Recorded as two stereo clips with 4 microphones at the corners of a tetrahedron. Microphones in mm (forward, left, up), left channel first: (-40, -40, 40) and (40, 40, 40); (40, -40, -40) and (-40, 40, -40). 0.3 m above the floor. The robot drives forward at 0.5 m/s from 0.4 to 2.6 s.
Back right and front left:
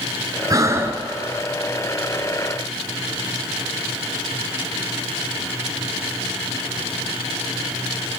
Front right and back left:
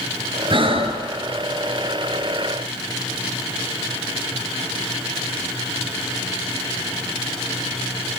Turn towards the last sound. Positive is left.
turn(degrees=145)